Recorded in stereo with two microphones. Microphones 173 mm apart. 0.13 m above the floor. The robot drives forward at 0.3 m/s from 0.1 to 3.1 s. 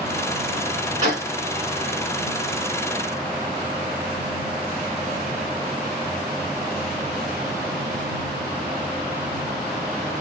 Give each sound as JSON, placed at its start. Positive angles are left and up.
{"t": 1.0, "sound": "a gunshot", "side_deg": -45, "distance_m": 3.5}